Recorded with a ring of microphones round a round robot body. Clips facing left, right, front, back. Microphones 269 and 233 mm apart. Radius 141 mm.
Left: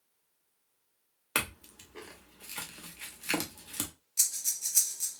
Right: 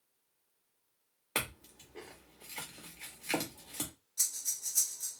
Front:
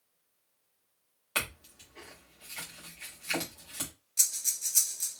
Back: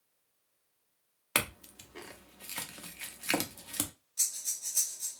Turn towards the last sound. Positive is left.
turn(degrees=55)